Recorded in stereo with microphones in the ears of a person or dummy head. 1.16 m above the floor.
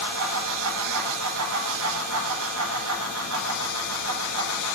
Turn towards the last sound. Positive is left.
turn(degrees=-85)